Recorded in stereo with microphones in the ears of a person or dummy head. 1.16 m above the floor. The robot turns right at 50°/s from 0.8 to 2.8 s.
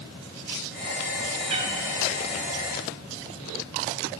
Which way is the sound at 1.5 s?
35° right (ahead or behind).